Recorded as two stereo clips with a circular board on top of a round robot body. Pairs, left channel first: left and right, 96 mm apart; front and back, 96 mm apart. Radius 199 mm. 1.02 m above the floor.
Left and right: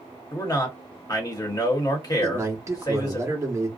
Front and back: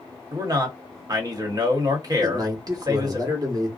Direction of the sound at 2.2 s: 140° right.